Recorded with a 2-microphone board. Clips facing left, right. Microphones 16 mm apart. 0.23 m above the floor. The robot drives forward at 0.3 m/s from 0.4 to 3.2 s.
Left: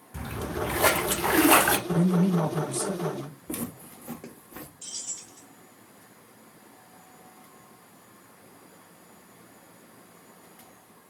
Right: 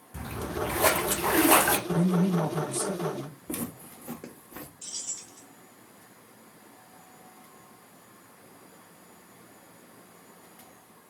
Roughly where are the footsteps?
Centre.